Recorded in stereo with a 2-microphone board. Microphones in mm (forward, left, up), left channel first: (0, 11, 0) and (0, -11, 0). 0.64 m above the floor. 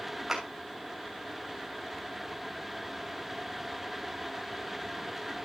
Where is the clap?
20° right (ahead or behind), 3 m.